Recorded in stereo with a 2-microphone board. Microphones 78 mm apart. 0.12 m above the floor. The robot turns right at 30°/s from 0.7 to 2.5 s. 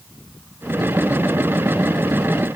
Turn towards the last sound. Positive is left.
No sound to turn to.